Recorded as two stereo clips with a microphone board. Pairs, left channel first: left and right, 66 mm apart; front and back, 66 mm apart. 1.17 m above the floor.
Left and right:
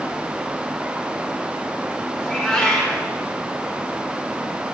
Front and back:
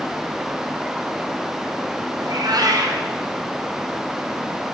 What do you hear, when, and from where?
2.2 s a cat meowing: 175° left, 3 m